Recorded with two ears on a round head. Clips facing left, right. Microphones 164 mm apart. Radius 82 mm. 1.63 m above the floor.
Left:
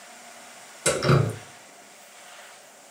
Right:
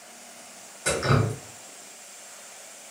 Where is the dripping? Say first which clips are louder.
Left 3 dB; 45° left (ahead or behind), 1.0 m.